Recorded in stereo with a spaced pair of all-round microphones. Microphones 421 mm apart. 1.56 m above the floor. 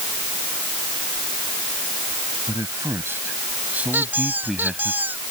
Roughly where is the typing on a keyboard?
I don't hear typing on a keyboard.